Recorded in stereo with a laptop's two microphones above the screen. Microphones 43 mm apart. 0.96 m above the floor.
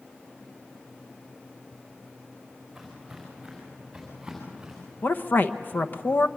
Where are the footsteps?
Centre (ahead or behind), 6.5 m; by 4.9 s 15° right (ahead or behind), 7.5 m.